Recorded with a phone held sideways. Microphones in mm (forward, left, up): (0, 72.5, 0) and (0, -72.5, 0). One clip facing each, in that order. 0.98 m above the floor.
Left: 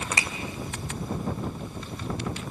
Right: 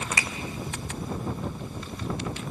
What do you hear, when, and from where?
0.2 s a finger snap: 30° left (ahead or behind), 1.9 m